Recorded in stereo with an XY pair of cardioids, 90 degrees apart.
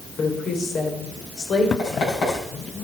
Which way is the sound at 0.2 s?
65° left.